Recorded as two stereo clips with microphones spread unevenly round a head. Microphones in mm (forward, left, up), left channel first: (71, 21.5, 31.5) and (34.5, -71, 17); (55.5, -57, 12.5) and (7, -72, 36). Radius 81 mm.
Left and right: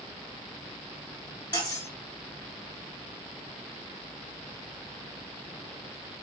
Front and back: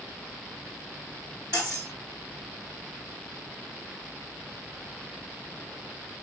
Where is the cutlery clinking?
145° left, 2.5 m.